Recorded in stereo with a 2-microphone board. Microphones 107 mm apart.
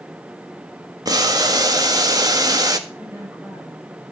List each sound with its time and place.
1.1 s boiling: 35° right (ahead or behind), 1.5 m
2.9 s a woman speaking: 20° right (ahead or behind), 6.5 m